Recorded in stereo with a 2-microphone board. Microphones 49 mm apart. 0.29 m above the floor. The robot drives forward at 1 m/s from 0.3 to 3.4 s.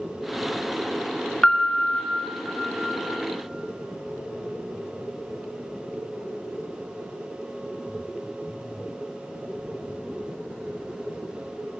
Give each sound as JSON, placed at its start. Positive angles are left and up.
{"t": 1.4, "sound": "a piano", "side_deg": 20, "distance_m": 0.7}